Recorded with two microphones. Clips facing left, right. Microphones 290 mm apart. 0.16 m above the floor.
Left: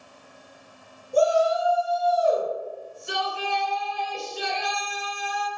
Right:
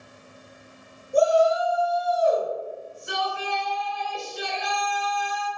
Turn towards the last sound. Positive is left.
turn(degrees=30)  # may be behind; listen again after turning